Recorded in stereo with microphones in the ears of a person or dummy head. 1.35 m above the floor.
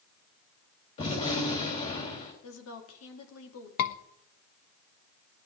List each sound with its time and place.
1.0 s a gunshot: 40° left (ahead or behind), 4 m
2.4 s a woman speaking: 90° left, 2.5 m
3.8 s a scream: 55° left (ahead or behind), 1.2 m